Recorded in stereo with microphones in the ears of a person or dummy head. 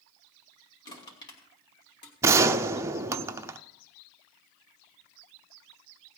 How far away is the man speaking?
No man speaking in this recording.